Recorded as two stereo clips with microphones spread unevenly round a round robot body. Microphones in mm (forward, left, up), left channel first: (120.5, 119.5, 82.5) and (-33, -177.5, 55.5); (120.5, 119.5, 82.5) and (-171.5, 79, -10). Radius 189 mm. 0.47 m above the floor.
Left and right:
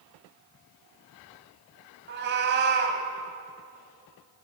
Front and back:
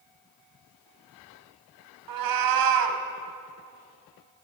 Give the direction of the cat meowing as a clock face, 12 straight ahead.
6 o'clock.